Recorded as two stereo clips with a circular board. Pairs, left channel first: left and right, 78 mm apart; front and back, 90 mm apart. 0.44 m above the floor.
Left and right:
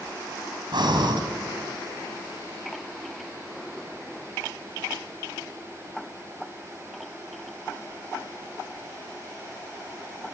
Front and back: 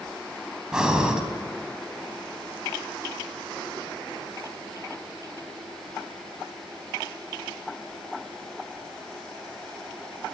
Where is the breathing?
100° right, 4 m.